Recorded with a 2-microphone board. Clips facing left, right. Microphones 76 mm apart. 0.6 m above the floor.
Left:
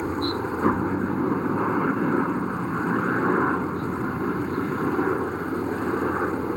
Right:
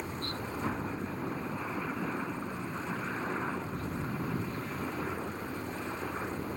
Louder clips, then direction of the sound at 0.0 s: Left 12 dB; 60° left (ahead or behind).